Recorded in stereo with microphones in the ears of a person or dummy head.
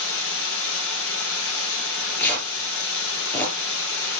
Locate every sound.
0.0 s running water: 80° left, 6.5 m
1.8 s tearing paper: 10° left (ahead or behind), 4 m